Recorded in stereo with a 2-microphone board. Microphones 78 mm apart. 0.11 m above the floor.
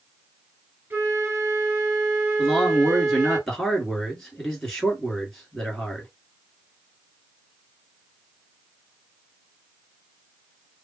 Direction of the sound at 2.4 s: 5° left (ahead or behind).